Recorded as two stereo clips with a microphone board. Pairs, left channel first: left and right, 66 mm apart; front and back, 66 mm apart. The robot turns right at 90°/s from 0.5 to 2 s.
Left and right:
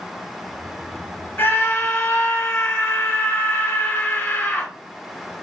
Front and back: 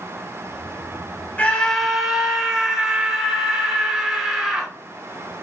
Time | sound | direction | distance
1.4 | a scream | 50° left | 1.6 m